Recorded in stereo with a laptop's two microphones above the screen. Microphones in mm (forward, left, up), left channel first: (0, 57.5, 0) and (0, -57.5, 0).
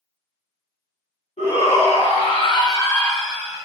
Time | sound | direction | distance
1.4 | a shout | 70° left (ahead or behind) | 1.4 m